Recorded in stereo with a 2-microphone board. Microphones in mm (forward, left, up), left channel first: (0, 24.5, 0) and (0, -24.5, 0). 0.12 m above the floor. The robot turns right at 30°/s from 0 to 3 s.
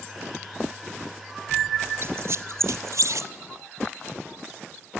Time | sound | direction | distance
2.0 | a squeak | 50° right (ahead or behind) | 0.6 m